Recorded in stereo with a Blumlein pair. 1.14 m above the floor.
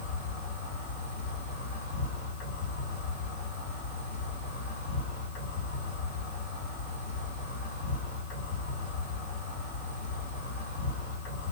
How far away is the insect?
About 1.7 m.